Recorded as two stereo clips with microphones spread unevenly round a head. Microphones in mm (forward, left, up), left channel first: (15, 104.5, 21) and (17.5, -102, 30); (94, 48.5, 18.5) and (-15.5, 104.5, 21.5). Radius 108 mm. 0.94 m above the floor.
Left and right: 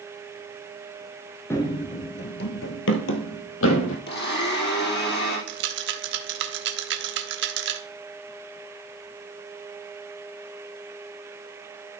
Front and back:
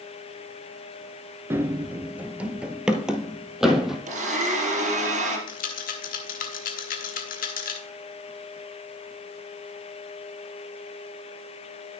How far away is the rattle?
About 1.2 m.